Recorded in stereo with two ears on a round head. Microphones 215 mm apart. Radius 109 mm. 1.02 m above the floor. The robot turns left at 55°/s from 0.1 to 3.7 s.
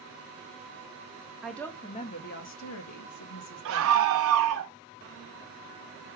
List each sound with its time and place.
1.4 s a woman speaking: 175° right, 0.9 m; by 4.1 s 60° left, 0.9 m
3.6 s a scream: 55° right (ahead or behind), 1.0 m